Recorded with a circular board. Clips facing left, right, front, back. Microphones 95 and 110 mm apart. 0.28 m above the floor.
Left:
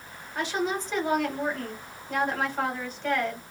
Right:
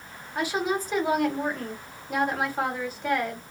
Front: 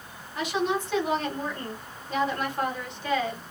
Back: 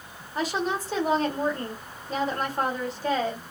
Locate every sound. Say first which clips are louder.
0.3 s a woman speaking: right 2 dB, front 1 dB; 170° right, 1.2 m